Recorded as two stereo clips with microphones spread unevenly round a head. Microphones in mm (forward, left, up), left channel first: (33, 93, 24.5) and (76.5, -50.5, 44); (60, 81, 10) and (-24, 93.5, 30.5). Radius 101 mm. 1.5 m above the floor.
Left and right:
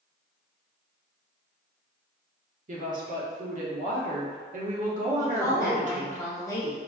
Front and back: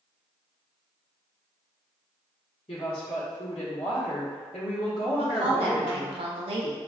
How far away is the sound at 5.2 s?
About 0.6 m.